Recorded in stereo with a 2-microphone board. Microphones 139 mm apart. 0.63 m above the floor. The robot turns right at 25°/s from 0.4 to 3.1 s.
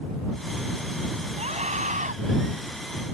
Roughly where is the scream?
Right.